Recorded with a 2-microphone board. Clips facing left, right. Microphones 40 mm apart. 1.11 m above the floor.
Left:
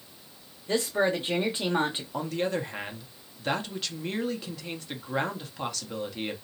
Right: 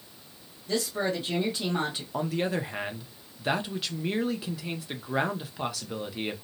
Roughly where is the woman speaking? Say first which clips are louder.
Left 3 dB; left.